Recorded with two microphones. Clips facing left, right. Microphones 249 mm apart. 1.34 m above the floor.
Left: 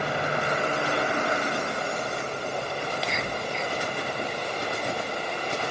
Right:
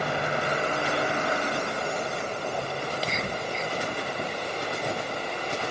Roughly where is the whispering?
Right.